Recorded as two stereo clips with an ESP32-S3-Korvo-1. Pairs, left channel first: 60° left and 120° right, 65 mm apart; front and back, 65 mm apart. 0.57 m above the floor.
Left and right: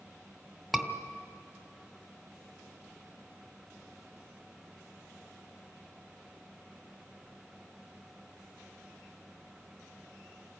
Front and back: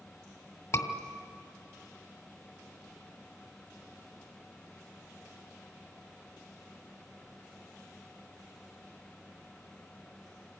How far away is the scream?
About 2.0 m.